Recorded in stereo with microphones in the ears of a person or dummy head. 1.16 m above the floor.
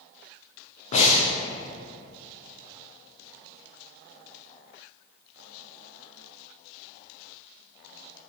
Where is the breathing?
45° left (ahead or behind), 0.7 m.